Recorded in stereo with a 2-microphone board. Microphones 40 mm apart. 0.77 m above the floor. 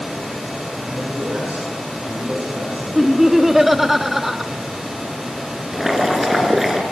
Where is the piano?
I don't hear a piano.